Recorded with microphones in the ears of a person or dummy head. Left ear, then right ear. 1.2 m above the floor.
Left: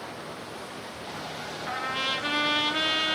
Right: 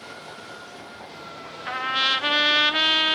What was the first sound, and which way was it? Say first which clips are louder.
A trumpet: right 7 dB; 35° right (ahead or behind).